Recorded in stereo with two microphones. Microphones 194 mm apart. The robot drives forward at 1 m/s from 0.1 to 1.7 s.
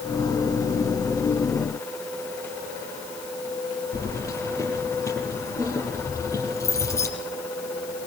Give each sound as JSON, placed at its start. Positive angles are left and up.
{"t": 3.9, "sound": "keys jangling", "side_deg": 15, "distance_m": 6.0}